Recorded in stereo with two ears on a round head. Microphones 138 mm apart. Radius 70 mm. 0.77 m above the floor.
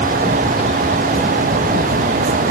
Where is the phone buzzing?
No phone buzzing in this recording.